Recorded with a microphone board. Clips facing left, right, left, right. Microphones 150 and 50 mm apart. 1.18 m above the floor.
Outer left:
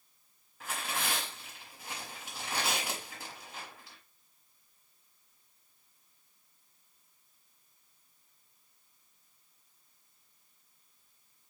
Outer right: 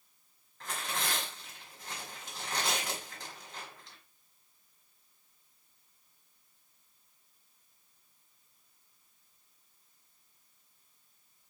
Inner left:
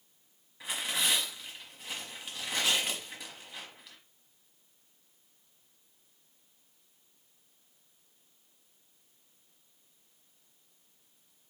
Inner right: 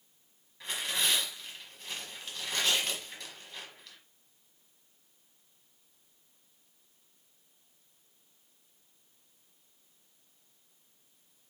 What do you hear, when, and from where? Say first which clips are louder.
0.6 s tearing paper: even, even; 10° left (ahead or behind), 1.3 m